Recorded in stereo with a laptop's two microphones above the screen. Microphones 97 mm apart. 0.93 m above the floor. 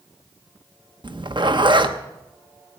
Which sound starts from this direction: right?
A zipper, at 1.0 s.